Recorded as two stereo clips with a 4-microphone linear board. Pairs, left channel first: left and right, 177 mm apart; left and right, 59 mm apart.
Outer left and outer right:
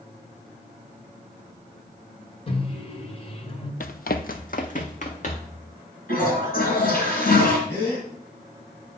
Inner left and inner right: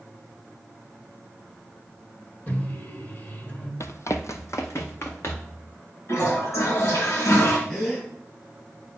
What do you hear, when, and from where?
2.5 s a microwave: 35° left (ahead or behind), 1.3 m
3.8 s running footsteps: 55° left (ahead or behind), 0.6 m; by 5.6 s 45° left (ahead or behind), 2 m
6.1 s a toilet flushing: 60° left (ahead or behind), 2.5 m
7.7 s a gasp: 15° left (ahead or behind), 3.5 m